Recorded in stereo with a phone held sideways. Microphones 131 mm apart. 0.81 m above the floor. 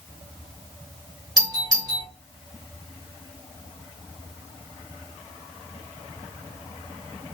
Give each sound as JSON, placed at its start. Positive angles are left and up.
{"t": 1.4, "sound": "a doorbell", "side_deg": -30, "distance_m": 1.2}